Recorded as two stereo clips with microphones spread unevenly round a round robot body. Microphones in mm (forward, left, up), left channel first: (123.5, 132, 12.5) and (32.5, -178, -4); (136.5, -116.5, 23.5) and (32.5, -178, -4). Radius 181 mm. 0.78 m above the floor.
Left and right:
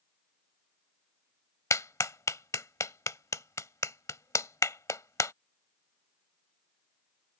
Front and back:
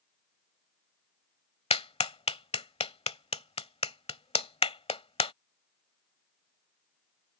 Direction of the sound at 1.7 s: 5° right.